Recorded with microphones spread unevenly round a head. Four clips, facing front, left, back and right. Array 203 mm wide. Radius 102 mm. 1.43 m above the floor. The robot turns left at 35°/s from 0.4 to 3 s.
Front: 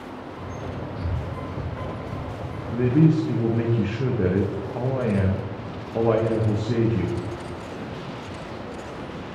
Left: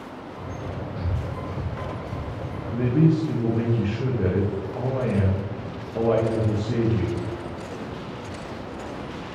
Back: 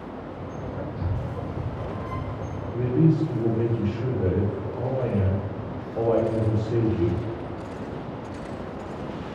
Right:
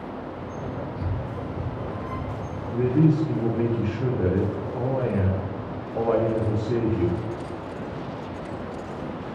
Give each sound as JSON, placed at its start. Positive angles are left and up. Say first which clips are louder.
{"t": 1.0, "sound": "breathing", "louder": "even, even", "azimuth_deg": 100, "distance_m": 1.3}
{"t": 2.7, "sound": "a man speaking", "louder": "even, front 3 dB", "azimuth_deg": 10, "distance_m": 0.9}